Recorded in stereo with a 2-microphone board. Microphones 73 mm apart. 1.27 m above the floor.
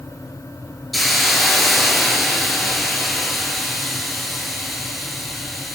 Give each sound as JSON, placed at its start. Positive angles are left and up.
{"t": 0.9, "sound": "a hiss", "side_deg": 0, "distance_m": 7.5}